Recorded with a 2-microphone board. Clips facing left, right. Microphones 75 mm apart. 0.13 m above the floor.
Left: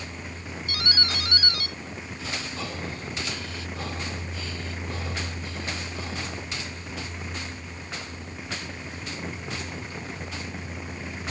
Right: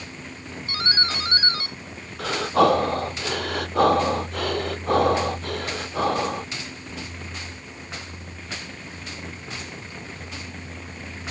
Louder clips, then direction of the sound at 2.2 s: Right 17 dB; 65° right (ahead or behind).